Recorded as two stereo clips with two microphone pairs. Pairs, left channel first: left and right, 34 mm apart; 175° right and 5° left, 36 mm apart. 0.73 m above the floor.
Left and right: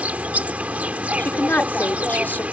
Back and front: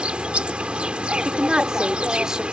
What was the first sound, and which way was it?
An insect, 50° right.